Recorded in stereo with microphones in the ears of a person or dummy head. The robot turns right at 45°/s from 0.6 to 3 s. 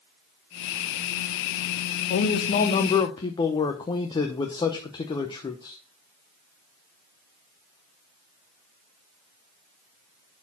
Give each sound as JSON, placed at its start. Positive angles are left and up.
{"t": 2.1, "sound": "a man speaking", "azimuth_deg": 115, "distance_m": 0.9}